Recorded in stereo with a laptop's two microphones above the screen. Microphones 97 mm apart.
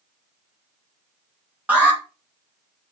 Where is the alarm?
15° right (ahead or behind), 2.5 m.